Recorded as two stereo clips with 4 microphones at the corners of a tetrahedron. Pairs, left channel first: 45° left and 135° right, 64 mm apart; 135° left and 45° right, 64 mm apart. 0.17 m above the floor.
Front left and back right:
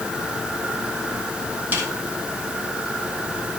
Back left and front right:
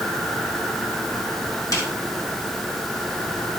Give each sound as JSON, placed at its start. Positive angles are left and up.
{"t": 1.7, "sound": "a snare drum", "azimuth_deg": 165, "distance_m": 3.0}